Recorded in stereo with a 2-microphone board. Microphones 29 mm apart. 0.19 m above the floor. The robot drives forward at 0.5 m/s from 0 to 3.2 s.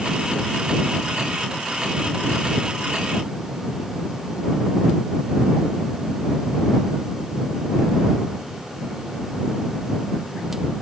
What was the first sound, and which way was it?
Only background noise.